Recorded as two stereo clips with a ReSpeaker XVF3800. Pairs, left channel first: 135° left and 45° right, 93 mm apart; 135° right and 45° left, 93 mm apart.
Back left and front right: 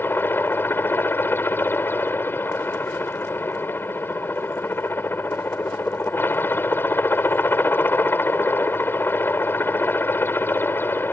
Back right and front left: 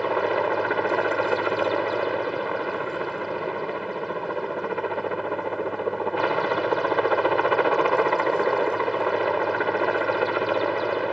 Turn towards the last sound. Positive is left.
turn(degrees=135)